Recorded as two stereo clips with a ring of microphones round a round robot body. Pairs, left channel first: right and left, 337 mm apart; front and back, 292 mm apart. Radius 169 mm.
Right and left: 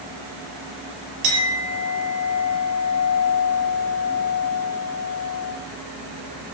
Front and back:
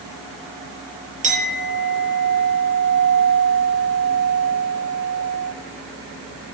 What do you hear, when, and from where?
1.2 s a clink: 115° left, 7.5 m